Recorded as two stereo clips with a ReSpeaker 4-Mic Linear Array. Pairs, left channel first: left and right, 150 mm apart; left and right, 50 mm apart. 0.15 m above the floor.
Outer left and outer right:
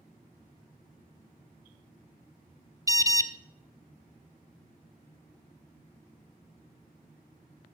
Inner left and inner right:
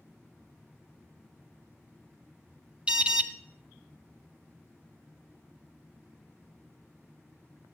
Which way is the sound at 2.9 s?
20° right (ahead or behind).